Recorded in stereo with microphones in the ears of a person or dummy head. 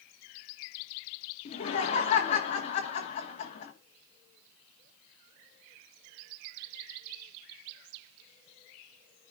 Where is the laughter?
35° left (ahead or behind), 1.4 m.